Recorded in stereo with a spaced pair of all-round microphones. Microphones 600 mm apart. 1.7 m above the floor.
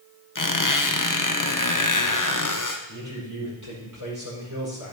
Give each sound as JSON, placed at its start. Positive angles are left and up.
{"t": 0.3, "sound": "a squeak", "side_deg": 30, "distance_m": 0.9}
{"t": 2.9, "sound": "a man speaking", "side_deg": -30, "distance_m": 5.0}